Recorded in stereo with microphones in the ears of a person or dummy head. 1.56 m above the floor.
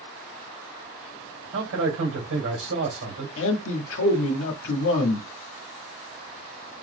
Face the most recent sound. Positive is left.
turn(degrees=75)  # may be behind; listen again after turning